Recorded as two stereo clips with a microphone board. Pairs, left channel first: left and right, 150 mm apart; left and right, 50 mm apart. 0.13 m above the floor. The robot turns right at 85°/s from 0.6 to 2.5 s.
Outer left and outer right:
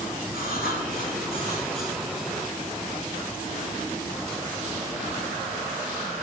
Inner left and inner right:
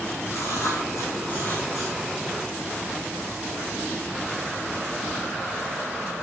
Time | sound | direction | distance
0.3 | writing | 80° left | 4 m